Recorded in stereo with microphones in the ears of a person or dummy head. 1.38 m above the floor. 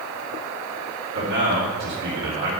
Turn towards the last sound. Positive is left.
turn(degrees=-60)  # may be behind; listen again after turning